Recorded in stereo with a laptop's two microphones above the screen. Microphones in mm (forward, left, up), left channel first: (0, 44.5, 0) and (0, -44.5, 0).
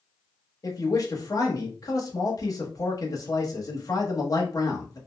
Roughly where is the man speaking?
Left.